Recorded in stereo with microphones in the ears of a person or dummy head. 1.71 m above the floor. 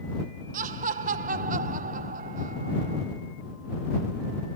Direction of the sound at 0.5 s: 45° right (ahead or behind).